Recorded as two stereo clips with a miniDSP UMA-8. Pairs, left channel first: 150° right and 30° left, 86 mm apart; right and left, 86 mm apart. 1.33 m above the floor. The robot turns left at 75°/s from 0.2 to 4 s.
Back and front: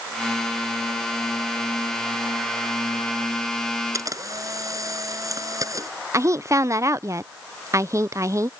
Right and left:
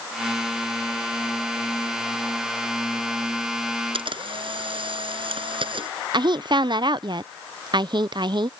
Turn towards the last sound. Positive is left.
turn(degrees=80)